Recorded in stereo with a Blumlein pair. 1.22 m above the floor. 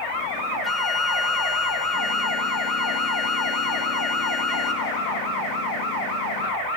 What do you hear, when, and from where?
0.6 s a flute: 15° left, 1.0 m